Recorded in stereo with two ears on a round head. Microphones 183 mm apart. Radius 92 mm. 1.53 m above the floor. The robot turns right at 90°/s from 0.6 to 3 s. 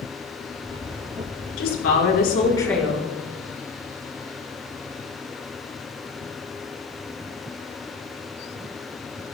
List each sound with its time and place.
1.6 s a woman speaking: 70° left, 5 m; by 3.1 s 160° right, 5 m